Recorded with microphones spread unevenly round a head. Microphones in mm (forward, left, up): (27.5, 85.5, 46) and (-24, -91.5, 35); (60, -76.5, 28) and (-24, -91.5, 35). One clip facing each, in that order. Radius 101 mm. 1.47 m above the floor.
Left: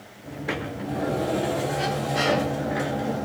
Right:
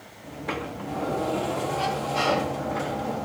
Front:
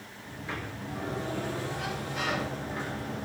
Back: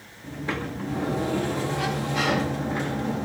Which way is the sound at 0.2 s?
150° left.